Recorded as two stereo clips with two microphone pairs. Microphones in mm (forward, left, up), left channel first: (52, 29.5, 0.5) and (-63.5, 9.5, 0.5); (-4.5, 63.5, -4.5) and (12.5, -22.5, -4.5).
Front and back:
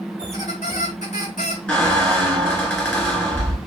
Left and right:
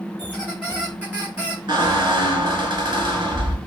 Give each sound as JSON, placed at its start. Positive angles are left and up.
{"t": 0.2, "sound": "a squeak", "azimuth_deg": 0, "distance_m": 1.1}
{"t": 1.7, "sound": "a squeak", "azimuth_deg": -65, "distance_m": 1.7}